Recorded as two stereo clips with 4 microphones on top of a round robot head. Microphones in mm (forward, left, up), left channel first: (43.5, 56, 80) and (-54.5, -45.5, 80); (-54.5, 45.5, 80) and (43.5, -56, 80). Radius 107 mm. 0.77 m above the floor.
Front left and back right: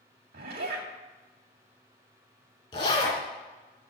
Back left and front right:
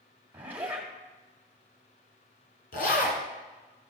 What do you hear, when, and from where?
0.3 s a zipper: 125° right, 1.9 m
2.7 s a zipper: 105° left, 2.5 m